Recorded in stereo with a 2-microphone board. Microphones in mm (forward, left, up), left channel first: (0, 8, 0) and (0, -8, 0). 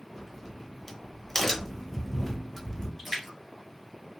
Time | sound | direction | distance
0.1 | a crack | 20° left (ahead or behind) | 0.8 m
3.0 | a splash | 15° right (ahead or behind) | 2 m